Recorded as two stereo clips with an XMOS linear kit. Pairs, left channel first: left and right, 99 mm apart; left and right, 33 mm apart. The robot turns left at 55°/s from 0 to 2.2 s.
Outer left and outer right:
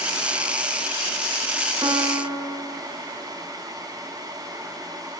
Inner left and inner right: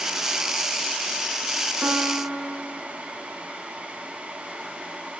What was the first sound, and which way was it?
A piano, 55° right (ahead or behind).